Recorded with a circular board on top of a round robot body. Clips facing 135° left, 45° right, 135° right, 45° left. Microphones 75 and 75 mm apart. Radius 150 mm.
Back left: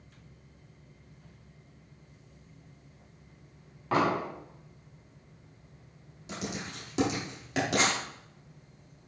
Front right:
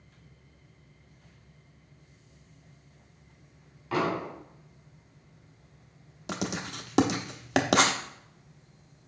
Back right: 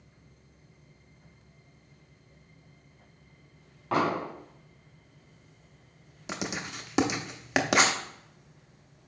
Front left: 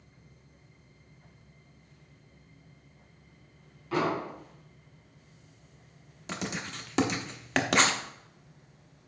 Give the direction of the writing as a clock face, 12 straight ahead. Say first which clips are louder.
Front right 4 dB, back right 1 dB; 2 o'clock.